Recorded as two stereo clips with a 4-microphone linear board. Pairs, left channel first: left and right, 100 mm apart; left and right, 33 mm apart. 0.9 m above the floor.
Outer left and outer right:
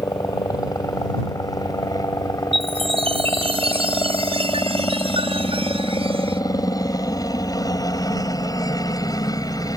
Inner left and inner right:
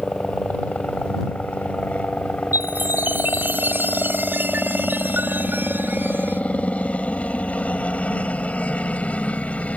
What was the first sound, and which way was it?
A helicopter, 40° left (ahead or behind).